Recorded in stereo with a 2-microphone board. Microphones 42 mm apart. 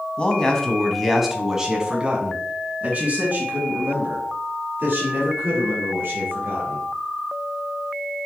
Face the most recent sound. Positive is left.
turn(degrees=-55)  # may be behind; listen again after turning